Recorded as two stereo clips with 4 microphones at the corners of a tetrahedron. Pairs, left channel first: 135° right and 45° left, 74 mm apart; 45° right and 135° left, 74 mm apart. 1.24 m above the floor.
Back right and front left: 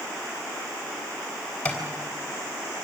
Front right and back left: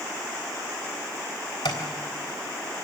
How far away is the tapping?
About 3.5 m.